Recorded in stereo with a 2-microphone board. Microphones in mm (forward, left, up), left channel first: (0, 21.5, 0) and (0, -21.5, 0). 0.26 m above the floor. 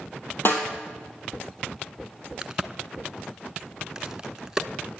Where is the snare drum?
55° left (ahead or behind), 2.5 m.